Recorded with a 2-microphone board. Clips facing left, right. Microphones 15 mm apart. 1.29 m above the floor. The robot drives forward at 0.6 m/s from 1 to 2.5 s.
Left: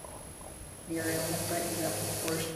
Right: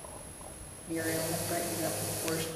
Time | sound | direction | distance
0.9 | a woman speaking | 5° left (ahead or behind) | 3 m